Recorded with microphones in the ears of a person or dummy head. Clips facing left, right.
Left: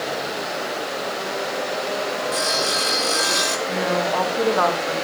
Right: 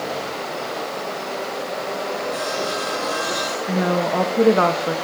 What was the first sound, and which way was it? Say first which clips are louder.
Sawing: even; 30° left (ahead or behind).